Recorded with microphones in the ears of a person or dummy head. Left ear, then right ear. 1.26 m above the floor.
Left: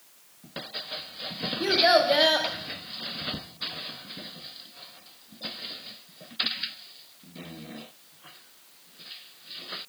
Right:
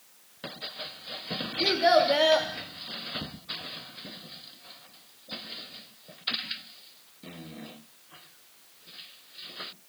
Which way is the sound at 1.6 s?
5° left (ahead or behind).